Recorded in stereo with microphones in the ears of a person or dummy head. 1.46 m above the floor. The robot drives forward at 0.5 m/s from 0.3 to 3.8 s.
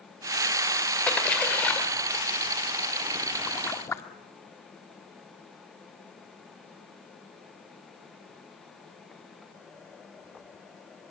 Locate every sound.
1.1 s a splash: 10° left (ahead or behind), 2.5 m; by 4.0 s 15° left (ahead or behind), 1.2 m